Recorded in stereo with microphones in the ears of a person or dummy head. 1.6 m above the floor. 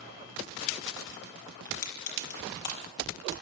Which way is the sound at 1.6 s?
60° left (ahead or behind).